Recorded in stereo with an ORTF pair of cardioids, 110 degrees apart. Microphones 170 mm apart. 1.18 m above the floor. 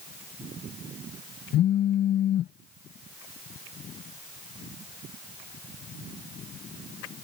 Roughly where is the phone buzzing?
Ahead left.